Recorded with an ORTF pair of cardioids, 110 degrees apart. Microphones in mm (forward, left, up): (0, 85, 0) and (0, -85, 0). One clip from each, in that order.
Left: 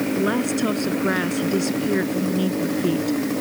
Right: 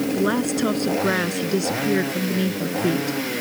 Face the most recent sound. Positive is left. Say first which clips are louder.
# right 1 dB
turn(degrees=-5)